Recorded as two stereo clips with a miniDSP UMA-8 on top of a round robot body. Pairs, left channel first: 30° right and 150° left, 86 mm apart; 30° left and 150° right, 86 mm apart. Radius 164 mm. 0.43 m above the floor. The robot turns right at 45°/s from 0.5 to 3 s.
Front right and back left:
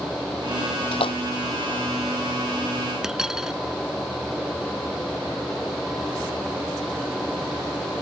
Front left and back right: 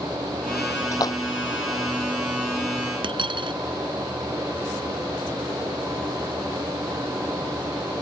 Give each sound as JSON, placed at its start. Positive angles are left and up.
{"t": 0.9, "sound": "a splash", "azimuth_deg": -25}
{"t": 3.0, "sound": "a dropped coin", "azimuth_deg": -125}